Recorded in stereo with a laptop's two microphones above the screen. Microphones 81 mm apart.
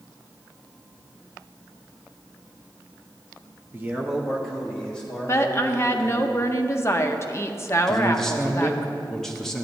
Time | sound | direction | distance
3.7 | a man speaking | 30° right (ahead or behind) | 0.7 m
5.3 | a woman speaking | 35° left (ahead or behind) | 0.5 m
7.9 | a man speaking | 5° left (ahead or behind) | 0.8 m